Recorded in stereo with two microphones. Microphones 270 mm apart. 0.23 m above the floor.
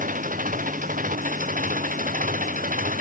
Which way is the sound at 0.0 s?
30° right (ahead or behind).